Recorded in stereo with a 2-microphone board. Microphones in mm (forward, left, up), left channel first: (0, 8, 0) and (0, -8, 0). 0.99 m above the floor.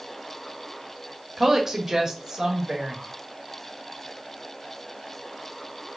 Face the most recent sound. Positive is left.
turn(degrees=-35)  # may be behind; listen again after turning